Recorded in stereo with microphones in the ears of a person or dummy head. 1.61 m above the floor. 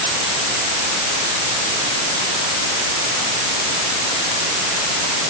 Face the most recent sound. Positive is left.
No sound to turn to.